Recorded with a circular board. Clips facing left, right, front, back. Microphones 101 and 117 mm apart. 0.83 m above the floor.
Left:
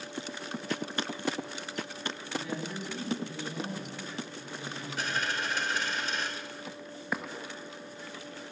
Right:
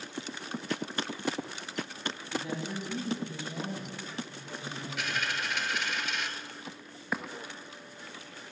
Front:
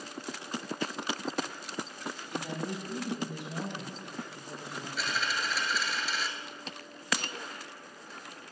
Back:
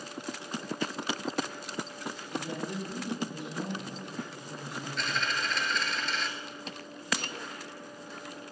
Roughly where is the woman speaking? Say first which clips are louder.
Right 1 dB, back 1 dB; ahead right.